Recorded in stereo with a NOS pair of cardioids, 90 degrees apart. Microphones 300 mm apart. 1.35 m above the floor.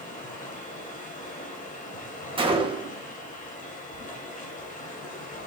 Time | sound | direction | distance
0.0 | running water | 25° left | 2.5 m
2.4 | a gunshot | 15° right | 1.8 m